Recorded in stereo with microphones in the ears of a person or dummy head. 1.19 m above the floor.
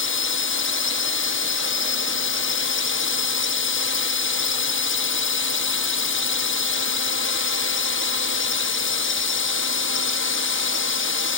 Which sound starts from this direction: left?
A drone, at 0.0 s.